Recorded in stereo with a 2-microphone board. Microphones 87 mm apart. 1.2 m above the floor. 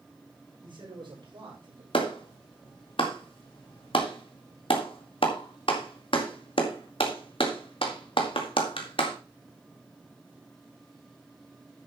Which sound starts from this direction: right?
A man speaking, at 0.6 s.